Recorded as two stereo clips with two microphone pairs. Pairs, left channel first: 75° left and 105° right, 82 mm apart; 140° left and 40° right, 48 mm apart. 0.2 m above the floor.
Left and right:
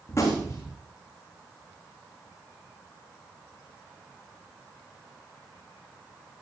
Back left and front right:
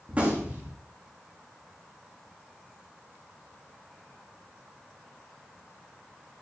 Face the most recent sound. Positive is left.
turn(degrees=30)